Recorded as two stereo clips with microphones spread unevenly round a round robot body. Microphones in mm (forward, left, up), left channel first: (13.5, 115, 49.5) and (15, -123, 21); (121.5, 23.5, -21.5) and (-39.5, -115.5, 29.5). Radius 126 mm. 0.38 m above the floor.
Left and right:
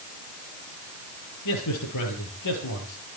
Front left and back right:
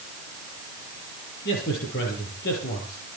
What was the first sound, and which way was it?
A man speaking, 90° left.